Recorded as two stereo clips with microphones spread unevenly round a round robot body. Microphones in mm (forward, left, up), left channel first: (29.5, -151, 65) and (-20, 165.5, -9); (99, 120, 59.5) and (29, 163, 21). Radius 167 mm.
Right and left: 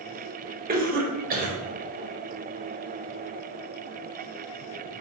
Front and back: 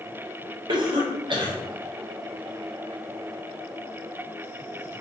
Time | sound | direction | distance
0.7 | a cough | 160° left | 1.0 m